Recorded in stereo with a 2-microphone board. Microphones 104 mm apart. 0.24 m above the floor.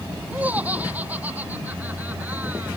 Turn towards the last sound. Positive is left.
turn(degrees=-15)  # may be behind; listen again after turning